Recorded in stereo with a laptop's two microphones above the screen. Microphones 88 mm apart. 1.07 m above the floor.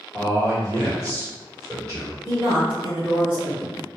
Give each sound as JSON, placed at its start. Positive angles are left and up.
{"t": 0.1, "sound": "a man speaking", "side_deg": -40, "distance_m": 1.3}
{"t": 2.2, "sound": "a woman speaking", "side_deg": -65, "distance_m": 1.9}